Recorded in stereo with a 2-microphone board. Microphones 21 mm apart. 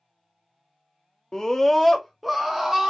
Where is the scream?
35° left (ahead or behind), 0.7 m; by 2.9 s 15° right (ahead or behind), 0.9 m.